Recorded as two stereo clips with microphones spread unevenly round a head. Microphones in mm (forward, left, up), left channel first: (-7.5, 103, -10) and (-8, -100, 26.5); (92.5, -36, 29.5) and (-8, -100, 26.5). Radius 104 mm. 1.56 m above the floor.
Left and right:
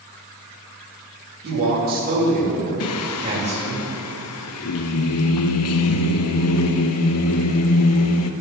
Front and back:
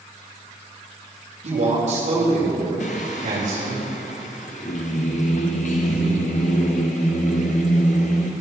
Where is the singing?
75° left, 0.6 m.